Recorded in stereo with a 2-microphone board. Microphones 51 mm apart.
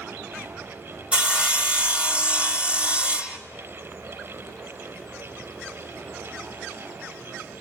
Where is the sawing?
25° right (ahead or behind), 1.4 m.